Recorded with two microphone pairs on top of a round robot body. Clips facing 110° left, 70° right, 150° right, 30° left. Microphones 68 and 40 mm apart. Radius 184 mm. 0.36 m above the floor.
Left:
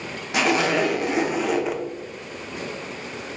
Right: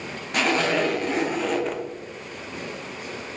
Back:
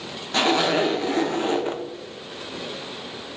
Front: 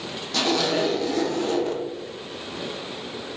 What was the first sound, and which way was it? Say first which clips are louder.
A zipper: left 2 dB, back 3 dB; 155° right.